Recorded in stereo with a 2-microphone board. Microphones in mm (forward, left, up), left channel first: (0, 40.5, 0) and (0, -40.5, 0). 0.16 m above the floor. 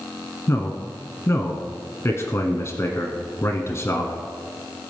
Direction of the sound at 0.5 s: 35° left (ahead or behind).